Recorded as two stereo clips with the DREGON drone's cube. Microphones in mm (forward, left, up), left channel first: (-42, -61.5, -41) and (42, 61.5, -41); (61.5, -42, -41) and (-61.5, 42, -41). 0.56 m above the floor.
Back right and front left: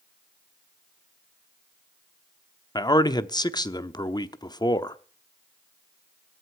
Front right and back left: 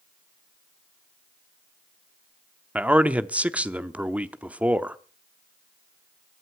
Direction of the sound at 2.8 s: 145° right.